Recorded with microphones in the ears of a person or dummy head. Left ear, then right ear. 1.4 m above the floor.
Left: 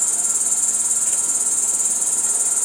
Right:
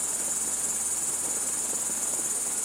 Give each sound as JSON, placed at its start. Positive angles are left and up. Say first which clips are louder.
{"t": 0.0, "sound": "an insect", "louder": "left 10 dB", "side_deg": 40, "distance_m": 0.9}